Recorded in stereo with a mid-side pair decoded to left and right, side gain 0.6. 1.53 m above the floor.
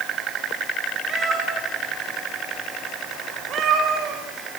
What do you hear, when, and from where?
1.1 s a cat meowing: 35° right, 9.5 m; by 4.2 s 55° right, 10 m